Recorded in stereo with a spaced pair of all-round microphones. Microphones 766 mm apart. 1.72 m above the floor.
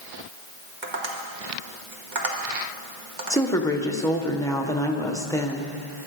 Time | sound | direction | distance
0.8 | tapping | 70° right (ahead or behind) | 2 m
3.3 | a woman speaking | 5° left (ahead or behind) | 1.5 m